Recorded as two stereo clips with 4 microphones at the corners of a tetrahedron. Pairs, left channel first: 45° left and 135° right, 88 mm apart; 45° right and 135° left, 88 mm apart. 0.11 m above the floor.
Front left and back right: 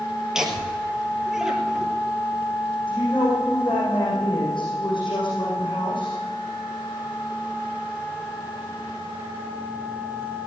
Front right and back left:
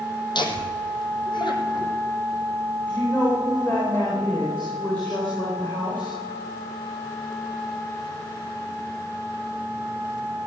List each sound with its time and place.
0.3 s laughter: 50° right, 2.5 m
2.9 s a woman speaking: 15° left, 7 m